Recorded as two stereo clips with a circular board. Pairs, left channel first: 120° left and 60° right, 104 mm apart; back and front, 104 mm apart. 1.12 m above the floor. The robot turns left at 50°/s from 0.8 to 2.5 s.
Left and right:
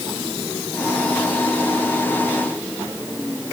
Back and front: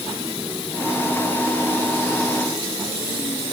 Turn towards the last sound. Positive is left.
No sound to turn to.